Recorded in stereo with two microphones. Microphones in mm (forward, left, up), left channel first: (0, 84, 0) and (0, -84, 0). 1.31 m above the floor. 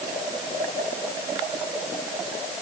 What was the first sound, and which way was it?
Only background noise.